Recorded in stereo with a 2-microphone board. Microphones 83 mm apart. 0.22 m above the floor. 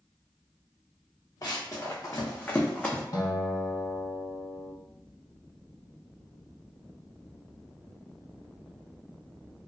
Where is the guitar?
50° left (ahead or behind), 0.6 m.